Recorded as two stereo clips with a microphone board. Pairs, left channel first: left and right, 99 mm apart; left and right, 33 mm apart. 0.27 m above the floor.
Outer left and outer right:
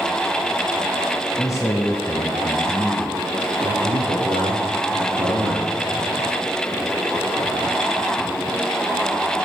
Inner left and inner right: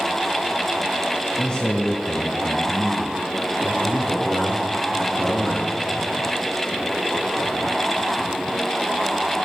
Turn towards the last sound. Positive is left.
turn(degrees=-70)  # may be behind; listen again after turning